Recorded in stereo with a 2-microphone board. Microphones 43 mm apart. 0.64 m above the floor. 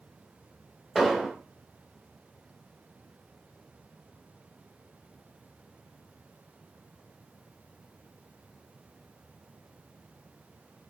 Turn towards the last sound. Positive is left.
turn(degrees=0)  # may be behind; listen again after turning